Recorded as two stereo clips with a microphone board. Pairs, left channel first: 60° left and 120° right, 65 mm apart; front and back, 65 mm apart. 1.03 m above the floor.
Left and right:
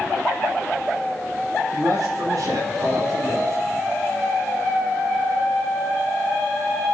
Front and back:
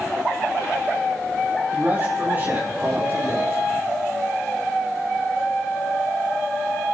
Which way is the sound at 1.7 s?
120° right.